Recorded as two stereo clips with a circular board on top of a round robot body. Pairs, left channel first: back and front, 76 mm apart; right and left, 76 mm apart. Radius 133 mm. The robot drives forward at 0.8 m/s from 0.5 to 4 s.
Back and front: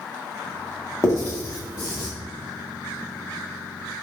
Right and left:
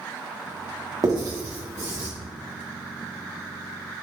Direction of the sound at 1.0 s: 130° left.